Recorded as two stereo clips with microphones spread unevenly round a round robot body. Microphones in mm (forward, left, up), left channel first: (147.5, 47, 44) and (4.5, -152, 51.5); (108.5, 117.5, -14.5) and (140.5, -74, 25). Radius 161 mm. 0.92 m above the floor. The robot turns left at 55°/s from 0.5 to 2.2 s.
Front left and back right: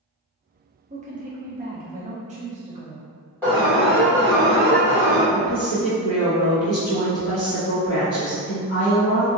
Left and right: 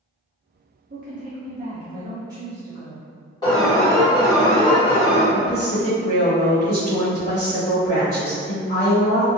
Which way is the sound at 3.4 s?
125° left.